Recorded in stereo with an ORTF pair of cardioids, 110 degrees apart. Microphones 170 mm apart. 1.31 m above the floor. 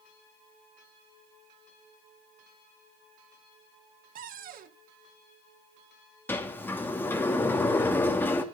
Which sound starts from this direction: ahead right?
A cupboard door, at 4.2 s.